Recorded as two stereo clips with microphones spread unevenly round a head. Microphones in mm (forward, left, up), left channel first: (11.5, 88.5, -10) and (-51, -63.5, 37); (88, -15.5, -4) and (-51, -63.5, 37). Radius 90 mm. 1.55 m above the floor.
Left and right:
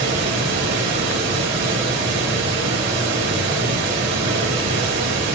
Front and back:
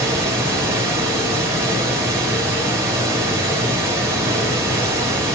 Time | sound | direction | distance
0.0 | running water | 90° right | 2 m